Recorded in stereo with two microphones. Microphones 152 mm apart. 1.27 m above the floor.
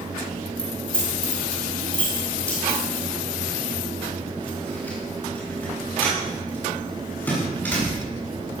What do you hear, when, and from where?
0.6 s keys jangling: 5° left (ahead or behind), 5 m; by 8.6 s 10° left (ahead or behind), 12.5 m